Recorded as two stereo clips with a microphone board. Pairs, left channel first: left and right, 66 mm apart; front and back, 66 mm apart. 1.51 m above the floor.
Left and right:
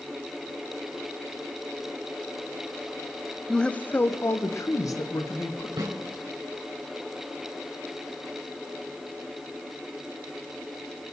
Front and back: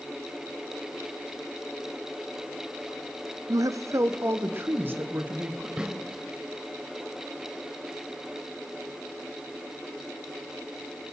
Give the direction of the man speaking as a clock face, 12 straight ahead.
6 o'clock.